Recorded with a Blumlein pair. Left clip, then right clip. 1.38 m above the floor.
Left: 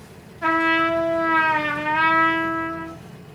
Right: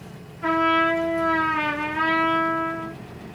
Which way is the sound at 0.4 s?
45° left.